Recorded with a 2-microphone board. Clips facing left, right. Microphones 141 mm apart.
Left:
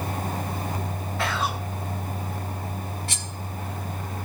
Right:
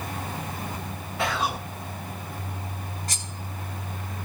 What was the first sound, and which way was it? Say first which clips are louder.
Whispering: right 1 dB; 15° right (ahead or behind).